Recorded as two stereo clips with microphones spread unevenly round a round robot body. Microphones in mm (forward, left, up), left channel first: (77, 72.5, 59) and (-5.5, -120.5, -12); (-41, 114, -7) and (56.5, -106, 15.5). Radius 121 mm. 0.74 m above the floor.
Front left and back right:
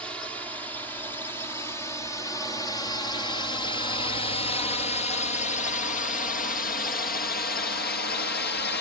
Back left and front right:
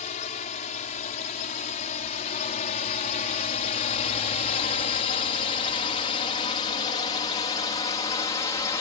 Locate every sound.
0.0 s a drone: 165° left; by 8.8 s 60° left